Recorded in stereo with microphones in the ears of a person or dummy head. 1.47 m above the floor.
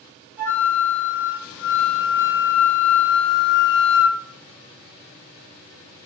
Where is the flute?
10° right (ahead or behind), 1.4 m.